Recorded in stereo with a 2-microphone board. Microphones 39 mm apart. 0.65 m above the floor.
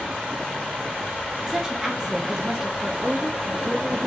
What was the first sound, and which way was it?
A woman speaking, 10° right (ahead or behind).